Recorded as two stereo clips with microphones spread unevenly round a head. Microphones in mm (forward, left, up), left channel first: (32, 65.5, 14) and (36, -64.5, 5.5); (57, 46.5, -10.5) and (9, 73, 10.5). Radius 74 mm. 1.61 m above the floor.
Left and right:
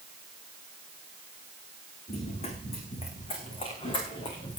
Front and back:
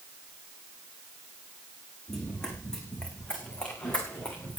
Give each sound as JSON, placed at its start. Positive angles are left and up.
{"t": 2.1, "sound": "running footsteps", "azimuth_deg": 60, "distance_m": 5.0}